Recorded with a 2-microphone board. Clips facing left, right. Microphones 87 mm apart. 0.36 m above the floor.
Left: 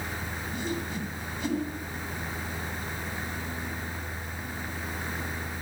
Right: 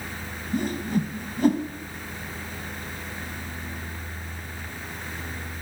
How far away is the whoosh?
About 1.8 m.